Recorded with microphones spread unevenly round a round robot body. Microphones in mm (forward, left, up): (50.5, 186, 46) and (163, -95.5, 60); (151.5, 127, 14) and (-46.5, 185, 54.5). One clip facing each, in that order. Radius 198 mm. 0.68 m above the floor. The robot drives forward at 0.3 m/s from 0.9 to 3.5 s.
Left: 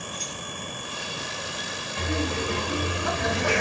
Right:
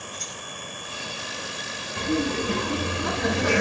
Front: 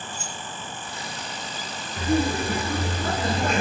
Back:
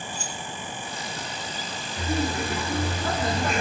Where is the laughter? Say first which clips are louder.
Right 4 dB, front 4 dB; 35° right, 1.4 m; by 3.6 s 55° right, 1.2 m.